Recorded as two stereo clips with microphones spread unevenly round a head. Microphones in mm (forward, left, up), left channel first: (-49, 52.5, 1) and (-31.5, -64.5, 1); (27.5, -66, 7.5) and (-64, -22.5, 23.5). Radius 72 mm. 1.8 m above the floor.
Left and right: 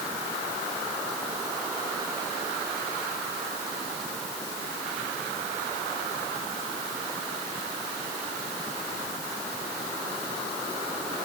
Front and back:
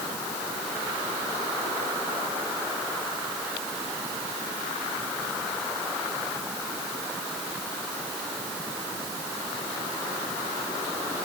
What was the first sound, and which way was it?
Only background noise.